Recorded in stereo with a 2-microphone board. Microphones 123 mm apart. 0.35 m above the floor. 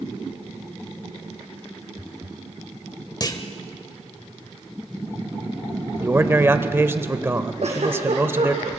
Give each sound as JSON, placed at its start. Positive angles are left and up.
{"t": 3.2, "sound": "a clunk", "side_deg": 35, "distance_m": 1.2}
{"t": 6.0, "sound": "a man speaking", "side_deg": -20, "distance_m": 1.0}
{"t": 7.6, "sound": "a giggle", "side_deg": -60, "distance_m": 4.0}